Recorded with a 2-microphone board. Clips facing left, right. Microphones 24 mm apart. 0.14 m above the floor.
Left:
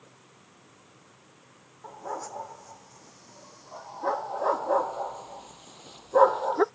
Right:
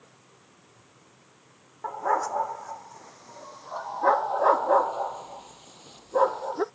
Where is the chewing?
No chewing in this recording.